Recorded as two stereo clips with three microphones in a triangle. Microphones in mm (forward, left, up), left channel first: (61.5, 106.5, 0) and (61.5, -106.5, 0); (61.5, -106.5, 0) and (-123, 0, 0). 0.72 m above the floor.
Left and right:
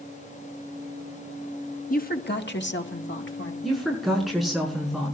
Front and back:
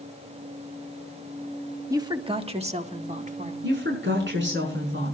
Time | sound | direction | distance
1.9 | a woman speaking | 85° left | 1.2 m
3.6 | a woman speaking | straight behind | 7 m